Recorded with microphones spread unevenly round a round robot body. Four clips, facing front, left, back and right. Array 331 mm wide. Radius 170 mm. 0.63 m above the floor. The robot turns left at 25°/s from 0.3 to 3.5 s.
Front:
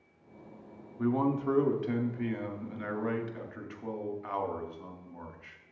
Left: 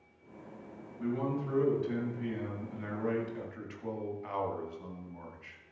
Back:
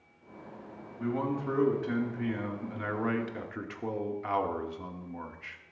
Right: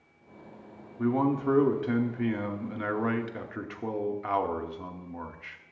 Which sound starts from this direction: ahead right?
A man speaking, at 1.0 s.